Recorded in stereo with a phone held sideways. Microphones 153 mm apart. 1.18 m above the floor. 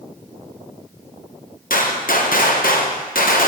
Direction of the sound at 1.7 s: 65° left (ahead or behind).